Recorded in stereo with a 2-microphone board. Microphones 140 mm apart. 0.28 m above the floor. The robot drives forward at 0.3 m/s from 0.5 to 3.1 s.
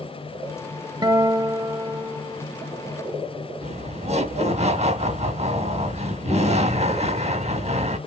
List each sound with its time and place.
1.0 s a guitar: 30° right (ahead or behind), 0.9 m; by 2.5 s 25° right (ahead or behind), 1.0 m
3.6 s laughter: 45° right (ahead or behind), 1.3 m